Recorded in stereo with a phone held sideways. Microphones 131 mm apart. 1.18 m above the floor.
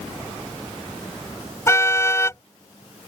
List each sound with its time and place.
1.7 s a car horn: 20° left (ahead or behind)